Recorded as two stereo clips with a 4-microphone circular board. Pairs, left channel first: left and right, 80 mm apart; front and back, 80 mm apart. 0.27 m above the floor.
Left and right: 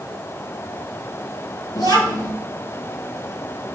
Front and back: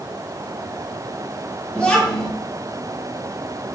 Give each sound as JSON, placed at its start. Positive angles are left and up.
{"t": 1.8, "sound": "a child speaking", "azimuth_deg": 75, "distance_m": 4.5}